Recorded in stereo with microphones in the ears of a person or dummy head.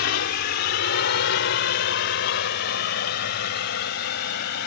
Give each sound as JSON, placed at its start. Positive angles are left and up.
{"t": 0.0, "sound": "a drone", "side_deg": 55}